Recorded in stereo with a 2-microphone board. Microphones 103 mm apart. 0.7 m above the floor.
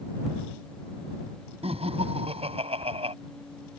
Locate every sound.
1.6 s laughter: 80° right